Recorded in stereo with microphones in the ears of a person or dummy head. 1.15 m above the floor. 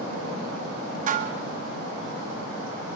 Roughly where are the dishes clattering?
Right.